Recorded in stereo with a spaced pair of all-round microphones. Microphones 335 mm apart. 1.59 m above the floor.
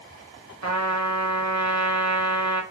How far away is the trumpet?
About 0.7 m.